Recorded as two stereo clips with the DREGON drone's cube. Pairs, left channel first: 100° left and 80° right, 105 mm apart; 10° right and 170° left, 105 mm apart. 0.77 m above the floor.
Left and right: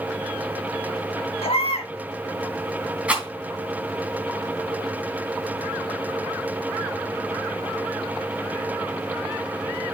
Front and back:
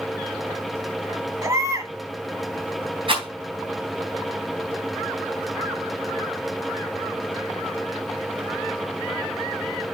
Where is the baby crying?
110° left, 2 m.